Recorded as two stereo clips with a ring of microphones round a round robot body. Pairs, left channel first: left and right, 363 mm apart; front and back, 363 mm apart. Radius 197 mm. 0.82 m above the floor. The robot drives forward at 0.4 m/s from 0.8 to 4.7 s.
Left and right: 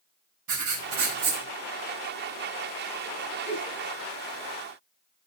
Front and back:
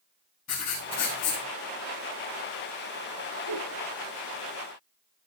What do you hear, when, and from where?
0.5 s writing: 55° right, 5.5 m
3.5 s a giggle: 35° right, 5 m